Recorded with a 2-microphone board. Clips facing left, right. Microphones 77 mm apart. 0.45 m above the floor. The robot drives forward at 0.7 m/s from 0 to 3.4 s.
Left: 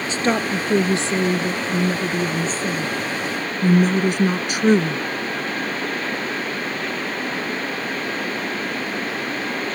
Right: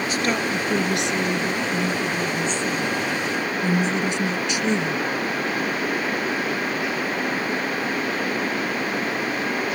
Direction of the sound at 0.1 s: 30° left (ahead or behind).